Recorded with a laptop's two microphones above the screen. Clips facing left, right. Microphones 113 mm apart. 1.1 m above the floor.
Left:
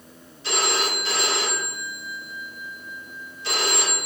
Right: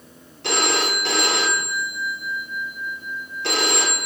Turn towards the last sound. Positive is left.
turn(degrees=-70)  # may be behind; listen again after turning